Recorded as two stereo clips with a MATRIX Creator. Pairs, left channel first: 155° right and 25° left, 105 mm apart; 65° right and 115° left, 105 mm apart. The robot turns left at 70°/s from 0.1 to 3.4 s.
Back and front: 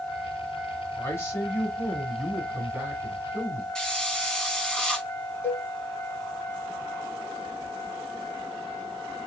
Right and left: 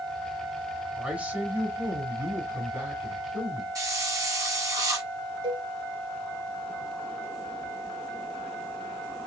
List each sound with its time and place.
1.0 s a man speaking: 170° right, 1.3 m; by 3.6 s 20° left, 1.3 m
3.8 s a hiss: 125° left, 1.0 m
5.4 s a cowbell: 135° left, 1.7 m